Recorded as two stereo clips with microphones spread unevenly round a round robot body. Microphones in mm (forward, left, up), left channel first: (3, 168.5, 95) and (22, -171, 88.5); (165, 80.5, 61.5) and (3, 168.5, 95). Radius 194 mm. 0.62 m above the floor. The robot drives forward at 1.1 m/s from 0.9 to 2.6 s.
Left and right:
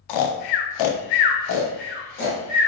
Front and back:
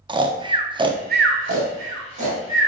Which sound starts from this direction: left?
Snoring, at 0.1 s.